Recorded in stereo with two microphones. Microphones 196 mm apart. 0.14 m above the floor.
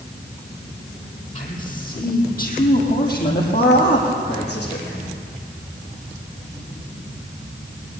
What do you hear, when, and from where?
1.4 s a man speaking: 40° left (ahead or behind), 5.5 m; by 5.1 s 60° left (ahead or behind), 8.5 m